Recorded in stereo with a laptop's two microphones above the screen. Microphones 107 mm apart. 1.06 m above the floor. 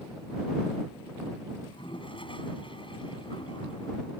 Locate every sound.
1.6 s a toilet flushing: 55° left (ahead or behind)